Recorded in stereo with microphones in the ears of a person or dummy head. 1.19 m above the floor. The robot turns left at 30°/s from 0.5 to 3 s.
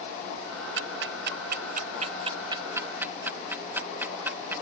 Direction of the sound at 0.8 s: 65° right (ahead or behind).